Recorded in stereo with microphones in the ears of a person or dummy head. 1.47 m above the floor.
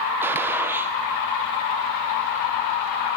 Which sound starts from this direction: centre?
A gunshot, at 0.2 s.